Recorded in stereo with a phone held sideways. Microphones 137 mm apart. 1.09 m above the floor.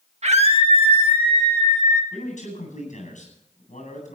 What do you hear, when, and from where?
0.2 s a scream: 55° right (ahead or behind), 1.6 m; by 2.0 s 30° right (ahead or behind), 2.5 m
2.1 s a man speaking: 65° left (ahead or behind), 9 m